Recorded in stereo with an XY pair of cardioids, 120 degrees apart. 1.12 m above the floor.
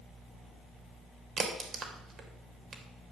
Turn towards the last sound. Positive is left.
turn(degrees=-45)